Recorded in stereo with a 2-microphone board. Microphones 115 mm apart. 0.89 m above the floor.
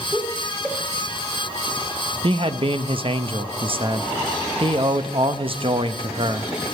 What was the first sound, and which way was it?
Laughter, 5° right (ahead or behind).